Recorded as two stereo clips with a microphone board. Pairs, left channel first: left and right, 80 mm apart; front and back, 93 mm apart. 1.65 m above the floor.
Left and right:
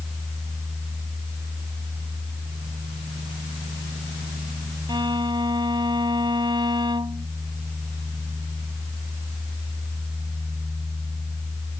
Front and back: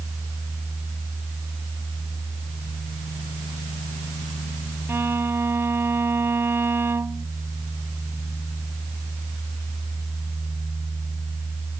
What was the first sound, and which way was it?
A violin, 115° right.